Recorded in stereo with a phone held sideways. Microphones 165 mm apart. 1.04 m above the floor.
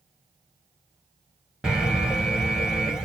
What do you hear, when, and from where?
1.6 s an alarm: 5° right (ahead or behind), 1.0 m